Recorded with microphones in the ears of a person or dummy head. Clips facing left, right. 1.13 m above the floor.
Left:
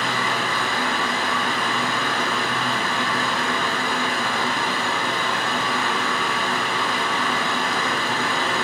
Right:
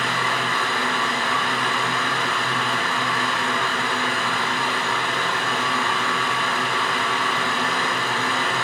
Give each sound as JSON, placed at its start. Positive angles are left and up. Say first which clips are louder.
{"t": 0.0, "sound": "a fan", "louder": "left 1 dB", "side_deg": 40, "distance_m": 0.9}